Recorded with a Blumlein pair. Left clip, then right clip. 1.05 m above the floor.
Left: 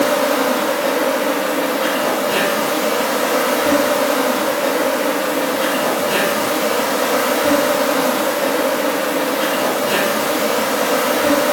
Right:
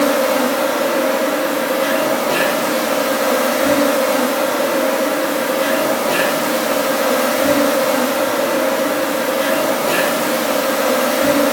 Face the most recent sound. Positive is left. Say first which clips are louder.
# right 1 dB
turn(degrees=0)